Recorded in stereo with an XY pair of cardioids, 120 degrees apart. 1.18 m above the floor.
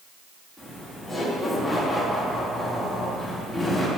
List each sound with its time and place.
0.6 s laughter: 10° left, 2.5 m